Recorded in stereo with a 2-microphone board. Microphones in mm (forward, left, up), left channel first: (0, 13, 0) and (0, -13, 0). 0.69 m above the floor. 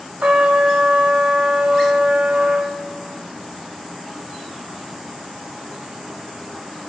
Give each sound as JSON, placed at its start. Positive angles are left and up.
{"t": 0.2, "sound": "a trumpet", "side_deg": -70, "distance_m": 0.6}